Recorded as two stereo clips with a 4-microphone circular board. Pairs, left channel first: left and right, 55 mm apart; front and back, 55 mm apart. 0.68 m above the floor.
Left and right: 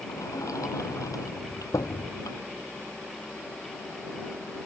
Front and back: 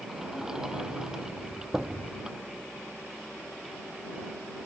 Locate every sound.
0.1 s a sliding door: 100° left